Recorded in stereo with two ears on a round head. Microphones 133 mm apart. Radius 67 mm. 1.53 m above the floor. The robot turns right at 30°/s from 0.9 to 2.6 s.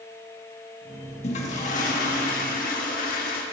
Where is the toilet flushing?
50° left, 1.4 m; by 3.4 s 95° left, 1.4 m.